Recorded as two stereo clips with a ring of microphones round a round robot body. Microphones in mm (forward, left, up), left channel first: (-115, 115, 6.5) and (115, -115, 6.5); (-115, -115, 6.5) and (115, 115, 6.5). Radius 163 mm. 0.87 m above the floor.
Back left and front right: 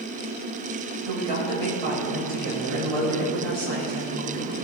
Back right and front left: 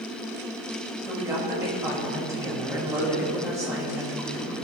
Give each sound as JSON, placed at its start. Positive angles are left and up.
{"t": 1.1, "sound": "a woman speaking", "azimuth_deg": -35, "distance_m": 5.0}